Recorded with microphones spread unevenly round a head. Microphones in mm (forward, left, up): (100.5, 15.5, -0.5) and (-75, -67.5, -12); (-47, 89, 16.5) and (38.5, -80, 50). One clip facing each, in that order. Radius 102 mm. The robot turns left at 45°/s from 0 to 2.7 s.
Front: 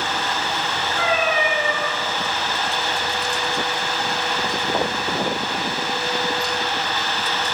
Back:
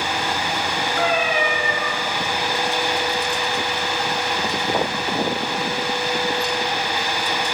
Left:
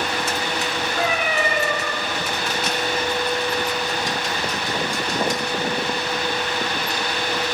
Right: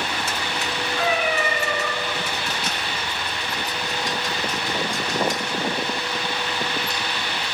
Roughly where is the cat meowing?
Behind.